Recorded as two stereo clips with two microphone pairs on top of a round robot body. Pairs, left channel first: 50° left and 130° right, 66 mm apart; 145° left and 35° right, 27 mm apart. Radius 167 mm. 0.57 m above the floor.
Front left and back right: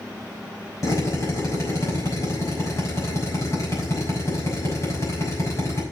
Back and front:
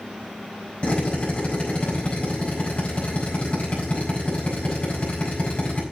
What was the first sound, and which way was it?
A drill, 100° left.